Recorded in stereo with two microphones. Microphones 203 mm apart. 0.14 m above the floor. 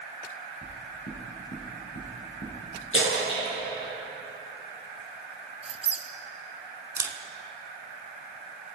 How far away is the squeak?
About 0.7 m.